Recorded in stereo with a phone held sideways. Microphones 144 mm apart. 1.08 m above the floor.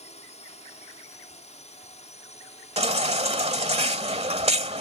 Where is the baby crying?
50° right (ahead or behind).